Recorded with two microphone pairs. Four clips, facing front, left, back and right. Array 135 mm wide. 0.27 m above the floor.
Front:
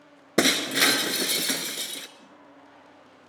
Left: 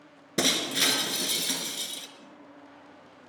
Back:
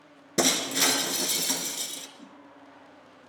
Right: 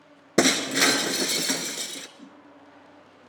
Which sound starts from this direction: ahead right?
Breaking glass, at 0.4 s.